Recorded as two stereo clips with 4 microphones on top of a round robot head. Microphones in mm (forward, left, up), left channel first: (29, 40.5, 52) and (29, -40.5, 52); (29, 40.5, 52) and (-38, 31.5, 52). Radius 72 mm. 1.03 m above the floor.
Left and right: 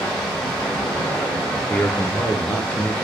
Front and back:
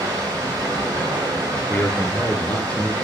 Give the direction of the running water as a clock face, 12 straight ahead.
6 o'clock.